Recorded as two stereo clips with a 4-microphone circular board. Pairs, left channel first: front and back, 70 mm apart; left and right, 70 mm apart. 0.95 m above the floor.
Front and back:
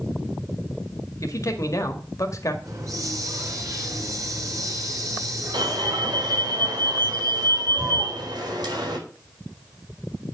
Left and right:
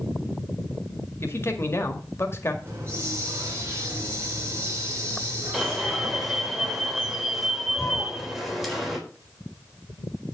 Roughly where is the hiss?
Behind right.